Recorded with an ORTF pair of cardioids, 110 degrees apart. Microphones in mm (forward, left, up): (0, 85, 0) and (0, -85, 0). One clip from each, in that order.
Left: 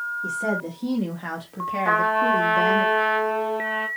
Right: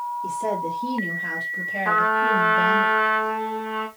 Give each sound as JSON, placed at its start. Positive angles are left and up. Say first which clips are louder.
{"t": 0.2, "sound": "a woman speaking", "louder": "right 1 dB", "azimuth_deg": 10, "distance_m": 1.8}
{"t": 1.9, "sound": "a trumpet", "louder": "even", "azimuth_deg": 5, "distance_m": 2.5}